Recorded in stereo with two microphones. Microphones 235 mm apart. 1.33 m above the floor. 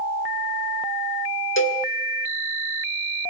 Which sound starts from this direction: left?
A cowbell, at 1.6 s.